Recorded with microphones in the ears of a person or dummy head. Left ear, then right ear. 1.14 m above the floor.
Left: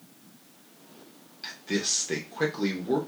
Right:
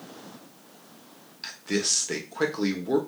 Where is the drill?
I don't hear a drill.